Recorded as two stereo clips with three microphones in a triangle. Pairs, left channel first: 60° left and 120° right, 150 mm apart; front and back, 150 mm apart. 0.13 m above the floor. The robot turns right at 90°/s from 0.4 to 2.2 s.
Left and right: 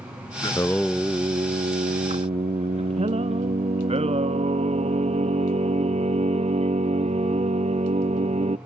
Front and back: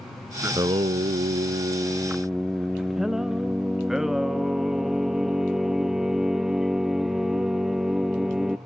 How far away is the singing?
About 0.5 m.